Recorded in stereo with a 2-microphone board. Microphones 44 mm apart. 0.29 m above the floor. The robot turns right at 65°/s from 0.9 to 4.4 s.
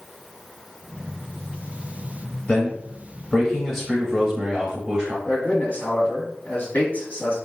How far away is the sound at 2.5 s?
About 1.6 m.